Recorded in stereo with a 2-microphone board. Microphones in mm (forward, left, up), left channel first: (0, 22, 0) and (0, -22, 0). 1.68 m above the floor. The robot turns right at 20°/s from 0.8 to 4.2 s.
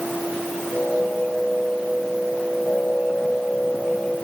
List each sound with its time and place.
Only background noise.